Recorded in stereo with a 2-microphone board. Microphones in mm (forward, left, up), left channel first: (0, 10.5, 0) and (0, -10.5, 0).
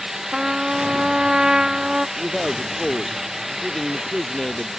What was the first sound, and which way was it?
A trumpet, 40° right (ahead or behind).